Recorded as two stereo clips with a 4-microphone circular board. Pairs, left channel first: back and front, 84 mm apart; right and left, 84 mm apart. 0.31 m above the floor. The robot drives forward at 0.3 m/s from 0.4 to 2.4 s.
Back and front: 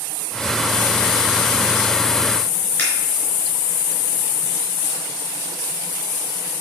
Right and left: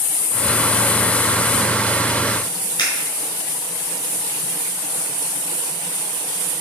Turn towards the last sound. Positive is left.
turn(degrees=-120)